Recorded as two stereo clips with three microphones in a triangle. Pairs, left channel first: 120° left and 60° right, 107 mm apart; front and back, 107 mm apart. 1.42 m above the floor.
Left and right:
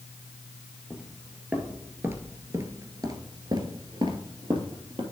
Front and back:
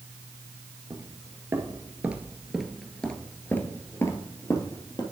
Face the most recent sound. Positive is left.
turn(degrees=-40)